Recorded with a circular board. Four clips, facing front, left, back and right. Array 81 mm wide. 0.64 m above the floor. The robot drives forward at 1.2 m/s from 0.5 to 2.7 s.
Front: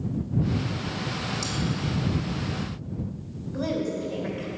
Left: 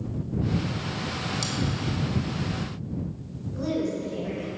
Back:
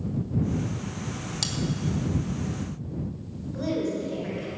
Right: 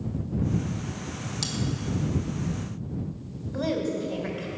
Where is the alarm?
No alarm in this recording.